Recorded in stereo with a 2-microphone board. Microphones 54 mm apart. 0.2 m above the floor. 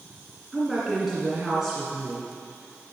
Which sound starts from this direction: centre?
A woman speaking, at 0.5 s.